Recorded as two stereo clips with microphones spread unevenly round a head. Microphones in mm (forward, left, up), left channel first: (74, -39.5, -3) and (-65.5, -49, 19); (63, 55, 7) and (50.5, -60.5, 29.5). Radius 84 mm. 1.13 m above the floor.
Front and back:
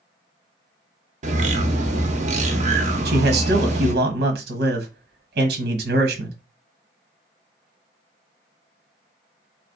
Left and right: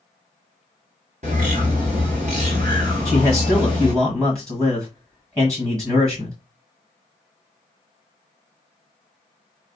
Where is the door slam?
I don't hear a door slam.